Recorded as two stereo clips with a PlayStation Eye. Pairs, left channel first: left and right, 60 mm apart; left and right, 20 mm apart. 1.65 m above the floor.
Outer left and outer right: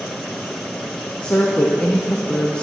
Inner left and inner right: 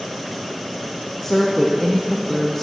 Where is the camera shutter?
No camera shutter in this recording.